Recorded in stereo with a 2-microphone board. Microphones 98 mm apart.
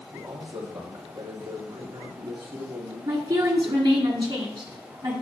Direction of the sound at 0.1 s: 65° right (ahead or behind).